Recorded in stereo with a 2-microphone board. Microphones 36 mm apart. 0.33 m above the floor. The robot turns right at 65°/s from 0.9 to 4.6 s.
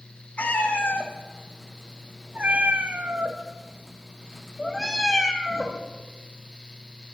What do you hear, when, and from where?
0.4 s a cat meowing: 40° left (ahead or behind), 1.0 m; by 5.8 s 5° left (ahead or behind), 1.0 m